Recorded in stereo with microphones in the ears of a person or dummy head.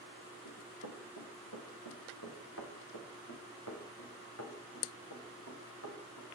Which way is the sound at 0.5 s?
65° left (ahead or behind).